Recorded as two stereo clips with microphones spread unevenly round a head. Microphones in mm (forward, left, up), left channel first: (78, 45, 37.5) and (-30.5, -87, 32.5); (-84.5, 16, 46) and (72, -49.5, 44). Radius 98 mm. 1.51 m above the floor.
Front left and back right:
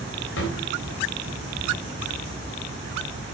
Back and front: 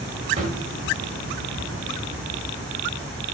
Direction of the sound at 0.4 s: 40° left.